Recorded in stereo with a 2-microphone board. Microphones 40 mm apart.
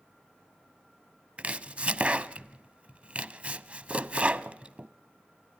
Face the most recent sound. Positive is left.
turn(degrees=-35)  # may be behind; listen again after turning